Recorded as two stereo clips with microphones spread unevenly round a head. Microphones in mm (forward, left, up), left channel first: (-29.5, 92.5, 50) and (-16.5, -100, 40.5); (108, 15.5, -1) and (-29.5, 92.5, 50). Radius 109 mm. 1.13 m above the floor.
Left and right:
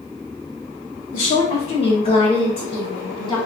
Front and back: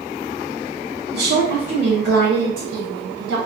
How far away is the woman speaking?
About 0.9 m.